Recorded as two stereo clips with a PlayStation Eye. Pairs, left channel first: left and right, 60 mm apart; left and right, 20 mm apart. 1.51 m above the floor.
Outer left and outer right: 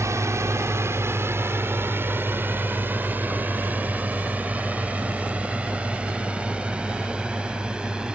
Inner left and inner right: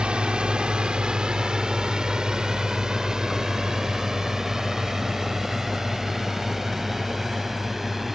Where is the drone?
60° right (ahead or behind); by 8.2 s 15° right (ahead or behind).